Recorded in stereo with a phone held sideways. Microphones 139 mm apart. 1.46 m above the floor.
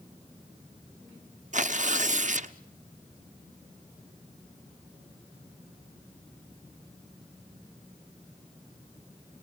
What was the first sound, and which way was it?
Tearing paper, 65° right (ahead or behind).